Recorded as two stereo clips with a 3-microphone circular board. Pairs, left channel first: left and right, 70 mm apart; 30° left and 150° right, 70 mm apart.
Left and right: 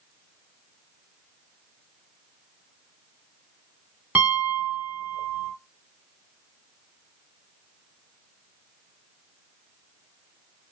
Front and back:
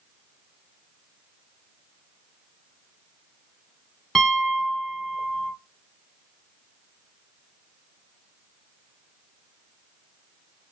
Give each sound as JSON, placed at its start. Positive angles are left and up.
{"t": 4.2, "sound": "a piano", "azimuth_deg": -50, "distance_m": 1.2}